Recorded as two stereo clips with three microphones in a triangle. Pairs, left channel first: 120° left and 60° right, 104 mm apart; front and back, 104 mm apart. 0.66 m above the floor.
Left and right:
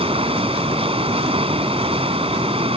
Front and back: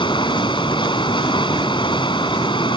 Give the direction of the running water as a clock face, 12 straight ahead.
1 o'clock.